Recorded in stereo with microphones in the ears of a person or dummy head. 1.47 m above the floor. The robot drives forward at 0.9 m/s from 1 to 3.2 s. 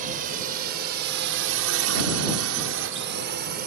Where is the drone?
45° right (ahead or behind).